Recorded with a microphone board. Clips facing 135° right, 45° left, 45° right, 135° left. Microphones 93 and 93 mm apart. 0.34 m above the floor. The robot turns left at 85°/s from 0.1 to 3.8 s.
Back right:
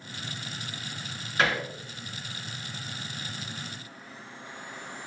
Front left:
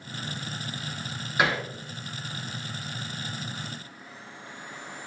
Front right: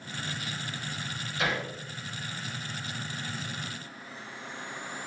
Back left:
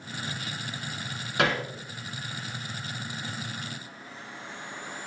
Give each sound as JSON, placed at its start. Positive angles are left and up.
{"t": 1.4, "sound": "hammering", "azimuth_deg": 125, "distance_m": 2.0}